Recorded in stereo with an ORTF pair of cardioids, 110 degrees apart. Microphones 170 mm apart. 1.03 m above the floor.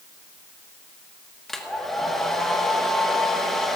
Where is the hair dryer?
Straight ahead, 1.6 m.